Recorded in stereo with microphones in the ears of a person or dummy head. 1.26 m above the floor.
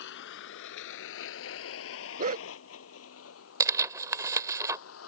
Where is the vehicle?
65° left (ahead or behind); by 5.1 s 85° left.